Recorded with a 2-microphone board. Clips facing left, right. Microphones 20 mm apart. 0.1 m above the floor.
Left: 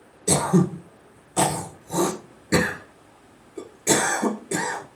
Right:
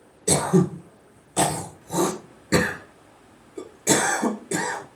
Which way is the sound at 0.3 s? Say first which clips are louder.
Even; 10° right (ahead or behind).